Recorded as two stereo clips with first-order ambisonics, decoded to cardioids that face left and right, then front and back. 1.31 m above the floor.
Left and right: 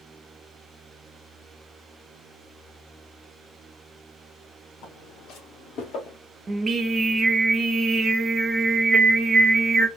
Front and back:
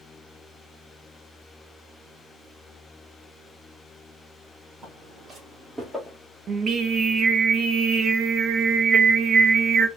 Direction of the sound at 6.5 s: 150° right.